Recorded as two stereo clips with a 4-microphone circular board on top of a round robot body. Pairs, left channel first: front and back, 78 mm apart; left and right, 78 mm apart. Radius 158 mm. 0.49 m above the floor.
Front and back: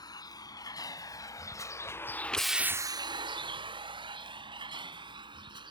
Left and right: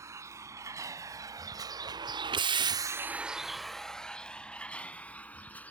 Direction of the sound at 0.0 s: 35° right.